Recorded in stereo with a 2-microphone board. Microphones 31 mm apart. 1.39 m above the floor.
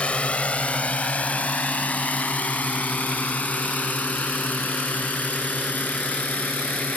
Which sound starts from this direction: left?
A drone, at 0.0 s.